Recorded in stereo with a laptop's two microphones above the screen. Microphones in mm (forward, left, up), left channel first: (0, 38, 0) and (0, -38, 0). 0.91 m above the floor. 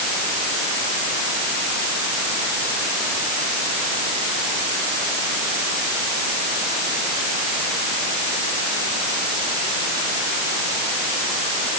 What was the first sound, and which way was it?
Only background noise.